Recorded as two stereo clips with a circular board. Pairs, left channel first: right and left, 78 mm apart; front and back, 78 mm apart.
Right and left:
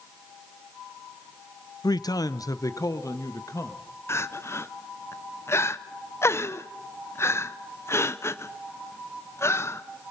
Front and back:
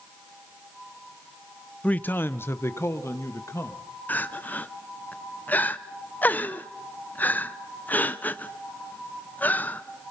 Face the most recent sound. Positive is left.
turn(degrees=-55)